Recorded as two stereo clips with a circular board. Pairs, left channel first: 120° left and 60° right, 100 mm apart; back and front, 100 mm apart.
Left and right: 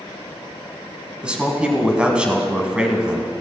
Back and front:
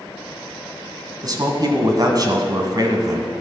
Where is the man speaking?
15° left, 1.5 m.